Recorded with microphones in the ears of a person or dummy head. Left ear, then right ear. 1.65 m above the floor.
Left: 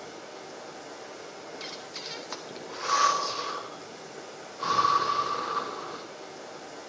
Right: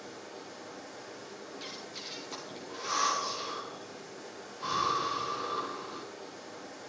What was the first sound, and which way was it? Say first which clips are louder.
Running water: left 3 dB; 65° left (ahead or behind).